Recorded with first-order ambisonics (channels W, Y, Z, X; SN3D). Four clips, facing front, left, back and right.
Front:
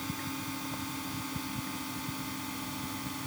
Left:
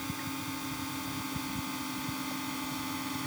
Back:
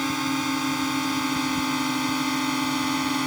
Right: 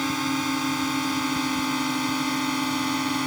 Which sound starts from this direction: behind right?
A drone, at 0.0 s.